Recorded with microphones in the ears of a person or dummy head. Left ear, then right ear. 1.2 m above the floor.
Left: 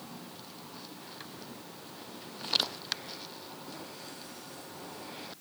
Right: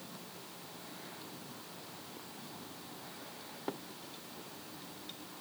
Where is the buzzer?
No buzzer in this recording.